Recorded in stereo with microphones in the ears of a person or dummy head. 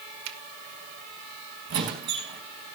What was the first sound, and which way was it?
A finger snap, 70° right (ahead or behind).